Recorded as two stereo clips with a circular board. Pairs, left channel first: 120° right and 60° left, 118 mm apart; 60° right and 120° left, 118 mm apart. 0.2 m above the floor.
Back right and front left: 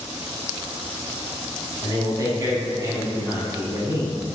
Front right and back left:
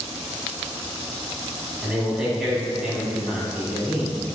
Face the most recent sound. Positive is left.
turn(degrees=45)